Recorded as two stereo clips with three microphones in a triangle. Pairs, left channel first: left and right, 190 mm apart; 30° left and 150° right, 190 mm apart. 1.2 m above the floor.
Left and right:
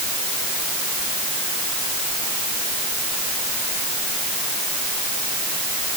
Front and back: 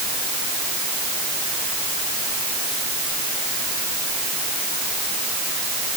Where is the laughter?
No laughter in this recording.